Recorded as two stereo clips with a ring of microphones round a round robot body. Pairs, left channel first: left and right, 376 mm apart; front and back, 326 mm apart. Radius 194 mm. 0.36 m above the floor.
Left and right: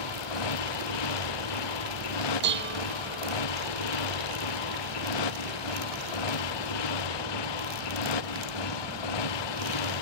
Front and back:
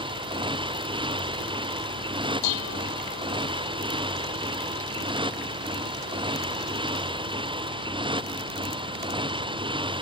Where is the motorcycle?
105° left.